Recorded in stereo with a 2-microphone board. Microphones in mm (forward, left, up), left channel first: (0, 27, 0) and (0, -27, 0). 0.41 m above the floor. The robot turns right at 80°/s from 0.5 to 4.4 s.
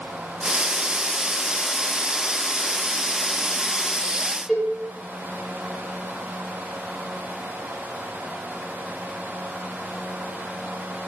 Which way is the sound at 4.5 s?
5° right (ahead or behind).